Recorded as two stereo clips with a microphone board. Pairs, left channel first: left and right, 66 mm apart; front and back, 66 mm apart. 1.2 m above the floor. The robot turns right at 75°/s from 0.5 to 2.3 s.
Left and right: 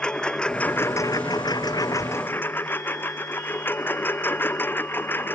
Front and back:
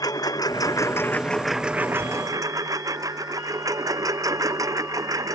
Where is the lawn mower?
15° left; by 5.3 s 150° left.